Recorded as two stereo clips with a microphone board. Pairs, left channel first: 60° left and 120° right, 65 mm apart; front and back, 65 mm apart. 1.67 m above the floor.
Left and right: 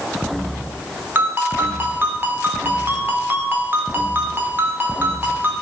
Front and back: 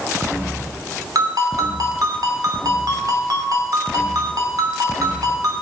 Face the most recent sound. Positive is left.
turn(degrees=-175)